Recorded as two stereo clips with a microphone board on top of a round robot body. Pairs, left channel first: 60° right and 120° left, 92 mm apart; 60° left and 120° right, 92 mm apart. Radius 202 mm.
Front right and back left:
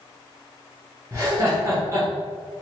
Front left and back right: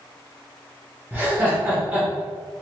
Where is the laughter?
170° left, 1.4 m.